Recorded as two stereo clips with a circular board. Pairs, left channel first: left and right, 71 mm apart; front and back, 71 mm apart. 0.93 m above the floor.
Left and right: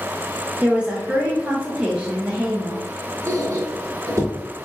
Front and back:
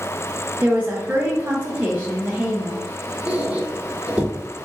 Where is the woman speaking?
140° right, 0.6 m.